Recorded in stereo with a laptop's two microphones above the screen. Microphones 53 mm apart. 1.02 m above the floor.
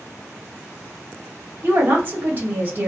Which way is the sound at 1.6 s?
35° right (ahead or behind).